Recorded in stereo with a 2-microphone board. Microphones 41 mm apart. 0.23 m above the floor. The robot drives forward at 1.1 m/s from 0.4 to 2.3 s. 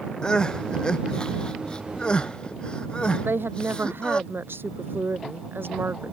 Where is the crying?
25° left (ahead or behind); by 4.2 s 30° left (ahead or behind).